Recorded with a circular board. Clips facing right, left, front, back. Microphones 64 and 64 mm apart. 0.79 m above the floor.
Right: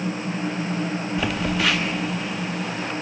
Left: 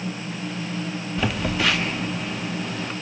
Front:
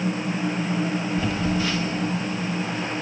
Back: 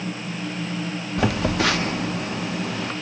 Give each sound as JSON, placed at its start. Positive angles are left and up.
{"t": 1.2, "sound": "a phone buzzing", "azimuth_deg": 180, "distance_m": 0.9}